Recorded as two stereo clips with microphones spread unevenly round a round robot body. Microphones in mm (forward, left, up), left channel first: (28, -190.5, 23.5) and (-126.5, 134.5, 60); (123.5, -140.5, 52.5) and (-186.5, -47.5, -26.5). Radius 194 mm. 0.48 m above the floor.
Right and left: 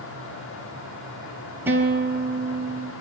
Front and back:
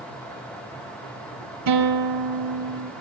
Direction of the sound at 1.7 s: 160° right.